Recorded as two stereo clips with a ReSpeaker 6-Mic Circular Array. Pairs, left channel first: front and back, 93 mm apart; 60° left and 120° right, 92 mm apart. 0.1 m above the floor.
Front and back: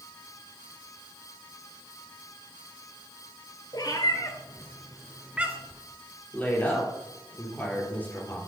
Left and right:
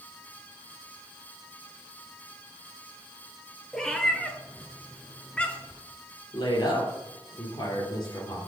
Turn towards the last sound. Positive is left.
turn(degrees=65)